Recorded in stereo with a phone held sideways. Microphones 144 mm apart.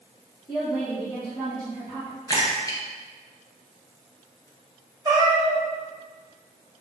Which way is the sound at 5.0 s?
30° right (ahead or behind).